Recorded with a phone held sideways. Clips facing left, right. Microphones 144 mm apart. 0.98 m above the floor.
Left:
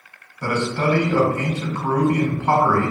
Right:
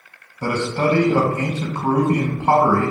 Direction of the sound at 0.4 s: 30° right (ahead or behind).